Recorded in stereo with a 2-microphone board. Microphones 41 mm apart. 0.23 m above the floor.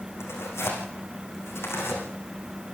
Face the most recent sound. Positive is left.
turn(degrees=85)